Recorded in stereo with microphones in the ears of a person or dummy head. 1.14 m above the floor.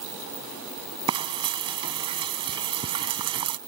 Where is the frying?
15° right (ahead or behind).